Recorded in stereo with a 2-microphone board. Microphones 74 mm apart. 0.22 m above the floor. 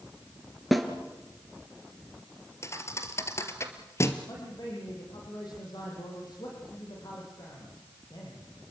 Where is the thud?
40° left (ahead or behind), 2.5 m.